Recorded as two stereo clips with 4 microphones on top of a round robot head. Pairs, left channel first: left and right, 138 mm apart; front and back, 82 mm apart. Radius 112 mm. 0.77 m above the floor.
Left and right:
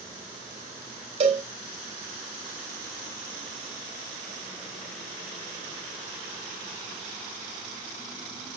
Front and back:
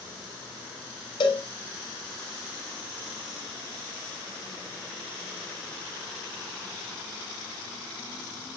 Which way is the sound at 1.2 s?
40° right.